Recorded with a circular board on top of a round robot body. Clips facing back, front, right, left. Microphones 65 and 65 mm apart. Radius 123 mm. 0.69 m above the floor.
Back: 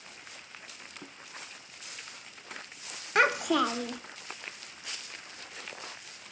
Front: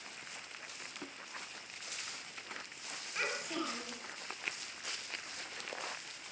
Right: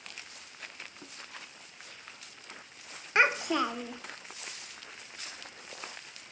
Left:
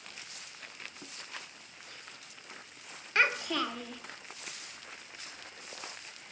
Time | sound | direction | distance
3.1 | a child speaking | 160° right | 1.3 m